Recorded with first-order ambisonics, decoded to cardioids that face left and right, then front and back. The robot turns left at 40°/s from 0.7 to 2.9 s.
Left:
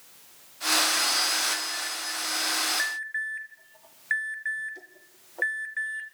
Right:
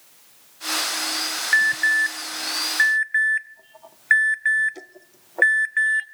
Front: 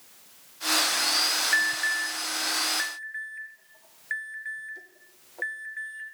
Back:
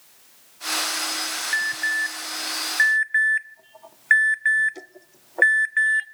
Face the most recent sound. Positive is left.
turn(degrees=-145)